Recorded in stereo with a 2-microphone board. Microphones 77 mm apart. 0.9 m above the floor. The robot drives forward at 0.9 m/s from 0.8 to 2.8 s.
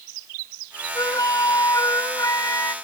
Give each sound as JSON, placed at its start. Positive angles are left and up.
{"t": 0.9, "sound": "a flute", "side_deg": 55}